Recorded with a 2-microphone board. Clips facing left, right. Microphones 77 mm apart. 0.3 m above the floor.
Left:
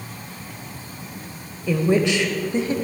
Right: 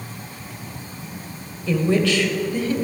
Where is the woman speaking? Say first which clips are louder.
Even; 10° left (ahead or behind), 0.9 m; by 2.7 s 25° left (ahead or behind), 1.3 m.